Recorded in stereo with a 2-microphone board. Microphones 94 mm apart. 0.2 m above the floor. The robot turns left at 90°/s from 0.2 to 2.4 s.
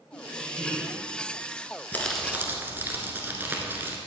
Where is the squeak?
120° left, 2.5 m; by 1.0 s 45° left, 2.5 m.